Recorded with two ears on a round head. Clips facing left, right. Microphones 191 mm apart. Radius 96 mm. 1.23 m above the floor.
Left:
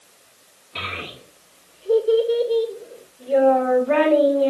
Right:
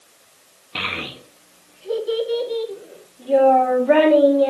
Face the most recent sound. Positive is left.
turn(degrees=-75)  # may be behind; listen again after turning